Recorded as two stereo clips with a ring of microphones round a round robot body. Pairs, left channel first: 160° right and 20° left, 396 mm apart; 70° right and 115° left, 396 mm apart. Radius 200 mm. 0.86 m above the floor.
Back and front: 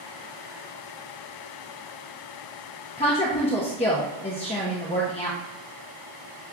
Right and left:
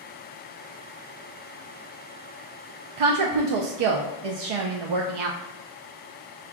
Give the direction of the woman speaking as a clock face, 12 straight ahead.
8 o'clock.